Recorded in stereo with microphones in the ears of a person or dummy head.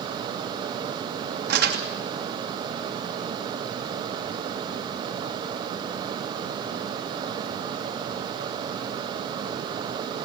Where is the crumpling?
50° right (ahead or behind), 3 m.